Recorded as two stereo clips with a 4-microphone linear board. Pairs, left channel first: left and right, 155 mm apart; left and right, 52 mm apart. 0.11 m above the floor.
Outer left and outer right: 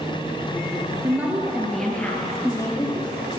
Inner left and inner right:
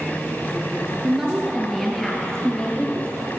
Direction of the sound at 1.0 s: 15° right (ahead or behind).